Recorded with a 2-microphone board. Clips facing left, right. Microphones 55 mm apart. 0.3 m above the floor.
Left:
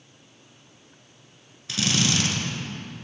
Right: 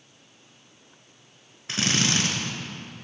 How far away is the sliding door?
I don't hear a sliding door.